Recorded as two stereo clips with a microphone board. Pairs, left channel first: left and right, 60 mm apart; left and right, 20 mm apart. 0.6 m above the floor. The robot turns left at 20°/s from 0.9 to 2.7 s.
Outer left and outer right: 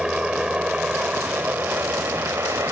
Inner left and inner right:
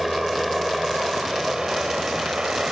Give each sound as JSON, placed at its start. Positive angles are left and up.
{"t": 0.0, "sound": "a helicopter", "side_deg": -15}